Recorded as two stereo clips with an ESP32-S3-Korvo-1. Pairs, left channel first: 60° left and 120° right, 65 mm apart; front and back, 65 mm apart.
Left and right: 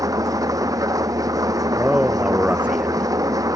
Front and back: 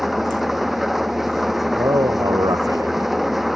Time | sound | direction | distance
0.0 | an engine running | 95° right | ?
1.8 | a man speaking | 165° left | ?